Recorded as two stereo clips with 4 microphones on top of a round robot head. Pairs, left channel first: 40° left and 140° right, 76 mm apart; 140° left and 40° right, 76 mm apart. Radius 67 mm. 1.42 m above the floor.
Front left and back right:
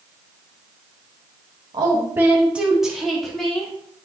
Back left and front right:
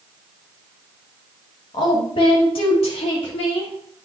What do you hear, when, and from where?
1.7 s a woman speaking: straight behind, 1.6 m; by 3.7 s 125° left, 3.5 m